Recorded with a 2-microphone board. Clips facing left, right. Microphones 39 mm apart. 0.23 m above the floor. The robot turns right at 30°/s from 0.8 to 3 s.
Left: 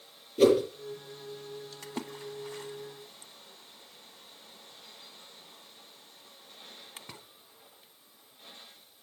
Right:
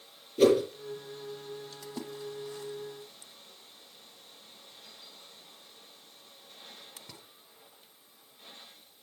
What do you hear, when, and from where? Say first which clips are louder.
0.4 s a whoosh: even; centre (ahead or behind), 4.5 m
1.8 s a splash: left 1 dB; 50° left (ahead or behind), 0.8 m; by 7.2 s 40° left (ahead or behind), 0.8 m